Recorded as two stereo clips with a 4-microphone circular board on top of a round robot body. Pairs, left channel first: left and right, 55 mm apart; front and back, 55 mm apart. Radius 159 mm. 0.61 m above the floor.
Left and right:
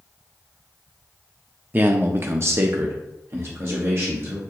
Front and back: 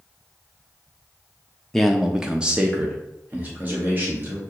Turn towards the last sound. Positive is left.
turn(degrees=-130)